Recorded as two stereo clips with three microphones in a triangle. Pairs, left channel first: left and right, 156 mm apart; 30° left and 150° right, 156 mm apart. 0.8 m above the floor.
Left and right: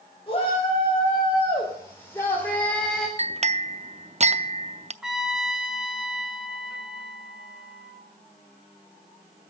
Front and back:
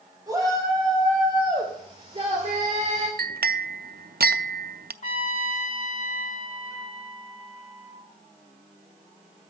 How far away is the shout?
About 4 m.